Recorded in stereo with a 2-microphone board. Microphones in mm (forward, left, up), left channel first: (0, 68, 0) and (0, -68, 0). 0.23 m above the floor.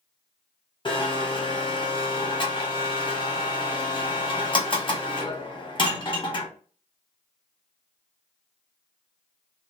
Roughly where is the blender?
Left.